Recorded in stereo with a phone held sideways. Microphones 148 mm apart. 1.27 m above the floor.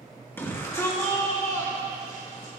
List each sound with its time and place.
0.4 s a shout: 15° left (ahead or behind), 1.7 m; by 2.5 s 30° left (ahead or behind), 4 m